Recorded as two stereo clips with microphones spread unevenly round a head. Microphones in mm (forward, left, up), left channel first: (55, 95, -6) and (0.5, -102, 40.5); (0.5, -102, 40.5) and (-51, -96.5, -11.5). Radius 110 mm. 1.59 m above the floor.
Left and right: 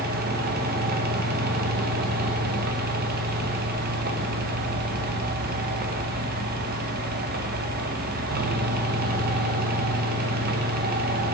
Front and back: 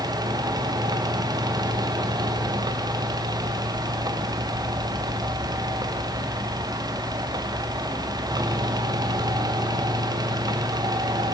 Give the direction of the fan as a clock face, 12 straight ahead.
5 o'clock.